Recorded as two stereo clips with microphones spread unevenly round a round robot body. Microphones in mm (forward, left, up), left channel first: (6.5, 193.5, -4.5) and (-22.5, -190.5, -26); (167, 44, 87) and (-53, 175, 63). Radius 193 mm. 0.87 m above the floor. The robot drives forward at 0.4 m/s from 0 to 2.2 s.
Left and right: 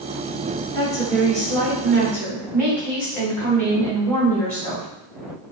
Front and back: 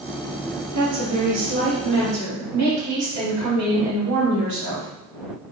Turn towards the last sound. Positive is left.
turn(degrees=170)